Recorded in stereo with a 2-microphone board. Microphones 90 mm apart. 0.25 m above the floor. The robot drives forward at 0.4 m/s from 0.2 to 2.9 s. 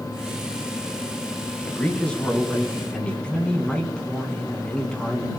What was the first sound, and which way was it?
A man speaking, 15° left (ahead or behind).